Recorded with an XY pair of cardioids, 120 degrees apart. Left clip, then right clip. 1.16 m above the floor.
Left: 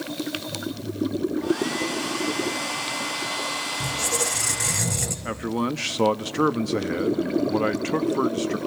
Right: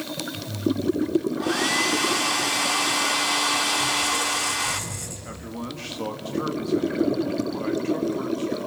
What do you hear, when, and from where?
1.4 s a hair dryer: 45° right, 4 m
3.8 s a squeak: 50° left, 2.5 m
5.2 s a man speaking: 55° left, 1.3 m